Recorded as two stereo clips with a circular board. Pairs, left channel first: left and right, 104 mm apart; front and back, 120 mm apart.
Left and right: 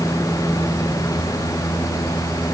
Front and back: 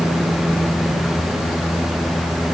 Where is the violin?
No violin in this recording.